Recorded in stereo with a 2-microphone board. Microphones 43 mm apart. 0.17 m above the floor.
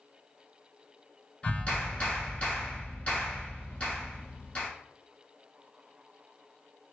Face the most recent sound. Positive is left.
turn(degrees=30)  # may be behind; listen again after turning